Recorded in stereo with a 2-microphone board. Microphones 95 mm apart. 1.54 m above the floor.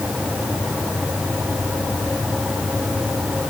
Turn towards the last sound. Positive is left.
No sound to turn to.